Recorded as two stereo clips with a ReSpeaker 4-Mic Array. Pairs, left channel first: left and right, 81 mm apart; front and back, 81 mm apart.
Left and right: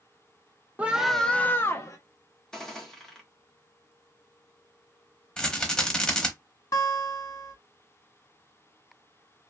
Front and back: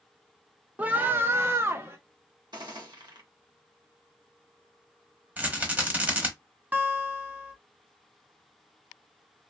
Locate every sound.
0.8 s a scream: 135° right, 0.5 m; by 2.0 s 130° left, 0.8 m
2.5 s a gunshot: 170° left, 1.1 m
5.4 s a rattle: 150° left, 1.0 m
6.7 s a guitar: 115° left, 0.7 m